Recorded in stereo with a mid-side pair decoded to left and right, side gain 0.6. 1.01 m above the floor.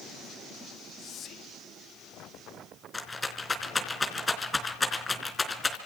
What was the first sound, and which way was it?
Whispering, 45° left.